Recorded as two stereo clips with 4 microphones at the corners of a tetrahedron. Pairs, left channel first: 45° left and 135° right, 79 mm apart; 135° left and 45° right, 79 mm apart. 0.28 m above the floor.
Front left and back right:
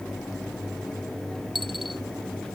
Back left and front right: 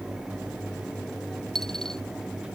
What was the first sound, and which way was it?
A dropped coin, 140° right.